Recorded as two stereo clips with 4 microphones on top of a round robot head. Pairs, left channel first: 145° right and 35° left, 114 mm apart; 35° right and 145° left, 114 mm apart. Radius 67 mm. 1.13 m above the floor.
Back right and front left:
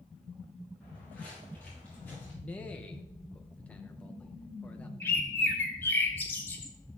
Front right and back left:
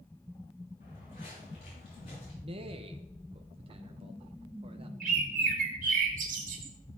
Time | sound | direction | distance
0.8 | footsteps | 65° right | 5 m
2.4 | a man speaking | 145° left | 0.7 m
5.0 | a bird | 145° left | 2 m